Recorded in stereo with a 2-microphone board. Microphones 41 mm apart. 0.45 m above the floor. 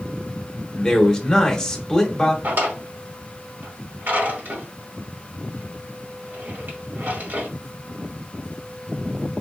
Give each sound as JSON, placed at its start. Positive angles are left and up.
{"t": 0.7, "sound": "a man speaking", "side_deg": 15, "distance_m": 1.0}
{"t": 2.4, "sound": "a drawer", "side_deg": -60, "distance_m": 1.4}